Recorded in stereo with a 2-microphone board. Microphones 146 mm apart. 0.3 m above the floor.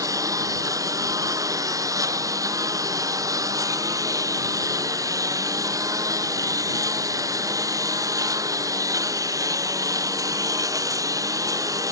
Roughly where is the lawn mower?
Right.